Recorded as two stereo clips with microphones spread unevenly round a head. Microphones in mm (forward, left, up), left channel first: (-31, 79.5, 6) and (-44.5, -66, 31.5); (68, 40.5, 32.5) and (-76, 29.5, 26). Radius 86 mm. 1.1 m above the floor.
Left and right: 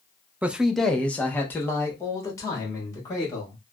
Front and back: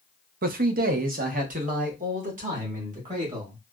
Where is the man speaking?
Straight behind, 0.5 m; by 3.6 s 150° left, 2 m.